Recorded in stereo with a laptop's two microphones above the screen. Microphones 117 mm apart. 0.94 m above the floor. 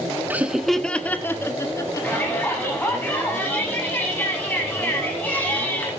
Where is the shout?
15° left (ahead or behind), 7.5 m.